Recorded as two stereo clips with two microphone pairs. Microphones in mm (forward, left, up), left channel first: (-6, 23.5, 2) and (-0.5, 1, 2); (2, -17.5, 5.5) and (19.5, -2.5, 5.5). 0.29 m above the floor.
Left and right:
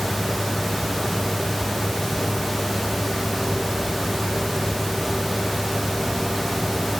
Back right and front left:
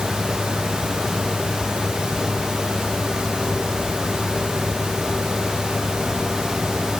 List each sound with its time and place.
Only background noise.